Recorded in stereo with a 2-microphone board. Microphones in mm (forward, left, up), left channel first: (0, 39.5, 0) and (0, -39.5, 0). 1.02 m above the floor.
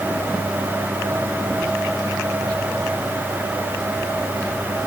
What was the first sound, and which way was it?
Only background noise.